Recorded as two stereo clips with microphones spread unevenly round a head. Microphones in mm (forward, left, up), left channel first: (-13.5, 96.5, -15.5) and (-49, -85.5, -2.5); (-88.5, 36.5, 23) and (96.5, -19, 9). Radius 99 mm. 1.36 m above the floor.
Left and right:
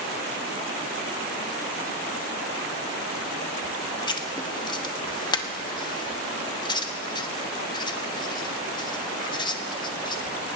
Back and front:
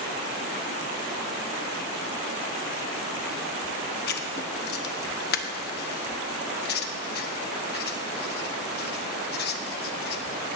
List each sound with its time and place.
4.1 s writing: 145° left, 1.0 m